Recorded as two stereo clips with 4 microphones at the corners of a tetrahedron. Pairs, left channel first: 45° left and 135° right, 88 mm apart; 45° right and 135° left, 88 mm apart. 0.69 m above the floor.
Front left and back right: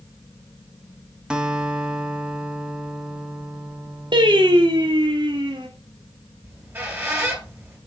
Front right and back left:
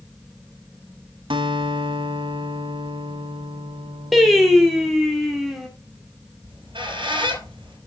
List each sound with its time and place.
1.3 s a guitar: 145° left, 1.2 m
4.1 s singing: 135° right, 1.8 m
6.4 s a squeak: 160° left, 3 m